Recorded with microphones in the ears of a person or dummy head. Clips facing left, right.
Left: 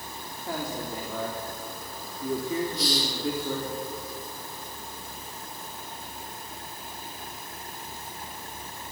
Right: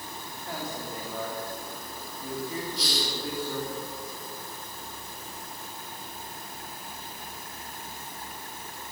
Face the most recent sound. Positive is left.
turn(degrees=-60)  # may be behind; listen again after turning